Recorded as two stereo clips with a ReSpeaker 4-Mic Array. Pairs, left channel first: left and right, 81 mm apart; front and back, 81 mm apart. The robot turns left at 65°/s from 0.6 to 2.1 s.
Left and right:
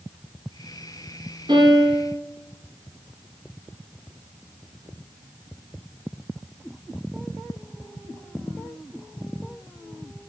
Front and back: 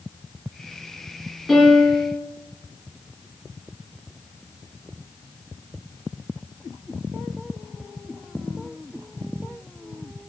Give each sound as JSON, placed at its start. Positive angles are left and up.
{"t": 1.5, "sound": "a piano", "azimuth_deg": -95, "distance_m": 3.0}